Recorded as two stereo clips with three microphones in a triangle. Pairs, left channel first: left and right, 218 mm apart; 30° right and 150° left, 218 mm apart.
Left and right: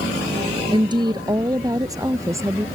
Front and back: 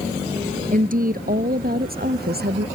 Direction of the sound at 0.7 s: 160° right.